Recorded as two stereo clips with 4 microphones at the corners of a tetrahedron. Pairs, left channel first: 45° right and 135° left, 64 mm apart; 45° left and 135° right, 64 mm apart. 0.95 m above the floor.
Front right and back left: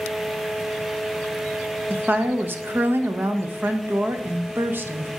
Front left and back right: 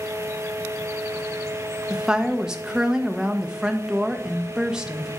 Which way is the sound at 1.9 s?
150° left.